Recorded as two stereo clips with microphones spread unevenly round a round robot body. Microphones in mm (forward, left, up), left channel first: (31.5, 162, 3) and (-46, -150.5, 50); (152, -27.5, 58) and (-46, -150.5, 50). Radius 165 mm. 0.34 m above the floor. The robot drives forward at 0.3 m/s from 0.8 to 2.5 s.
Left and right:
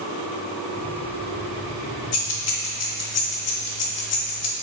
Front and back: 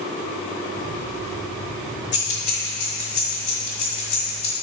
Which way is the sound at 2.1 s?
65° left.